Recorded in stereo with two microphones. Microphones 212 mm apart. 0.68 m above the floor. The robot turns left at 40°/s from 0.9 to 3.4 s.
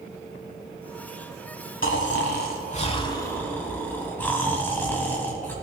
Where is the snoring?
70° left, 1.2 m; by 5.5 s 10° left, 1.2 m.